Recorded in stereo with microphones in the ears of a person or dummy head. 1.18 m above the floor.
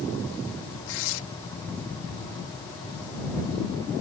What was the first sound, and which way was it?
Tearing paper, 70° left (ahead or behind).